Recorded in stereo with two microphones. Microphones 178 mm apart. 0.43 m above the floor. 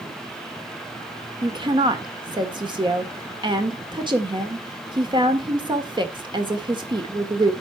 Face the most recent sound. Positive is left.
turn(degrees=-25)  # may be behind; listen again after turning